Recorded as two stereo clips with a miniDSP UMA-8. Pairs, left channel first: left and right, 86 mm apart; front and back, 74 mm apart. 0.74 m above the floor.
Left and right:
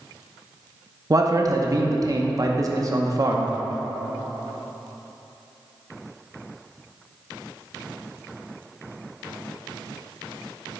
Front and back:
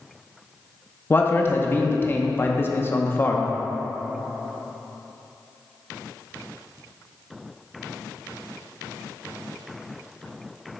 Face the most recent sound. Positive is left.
turn(degrees=-55)